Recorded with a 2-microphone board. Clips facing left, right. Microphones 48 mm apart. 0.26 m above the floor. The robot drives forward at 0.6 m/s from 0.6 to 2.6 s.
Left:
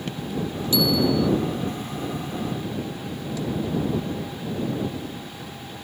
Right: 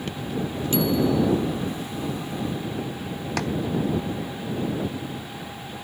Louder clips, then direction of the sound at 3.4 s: Right 3 dB; 70° right (ahead or behind).